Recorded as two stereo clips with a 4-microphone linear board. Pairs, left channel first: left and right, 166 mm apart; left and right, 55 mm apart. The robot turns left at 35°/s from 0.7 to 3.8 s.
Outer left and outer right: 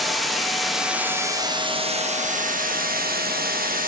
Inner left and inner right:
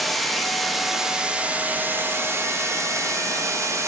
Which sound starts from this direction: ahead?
Running water, at 0.0 s.